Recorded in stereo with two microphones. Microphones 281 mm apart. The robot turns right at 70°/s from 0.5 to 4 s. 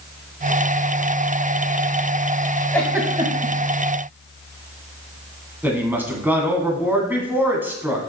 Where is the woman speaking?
5° right (ahead or behind), 2.0 m.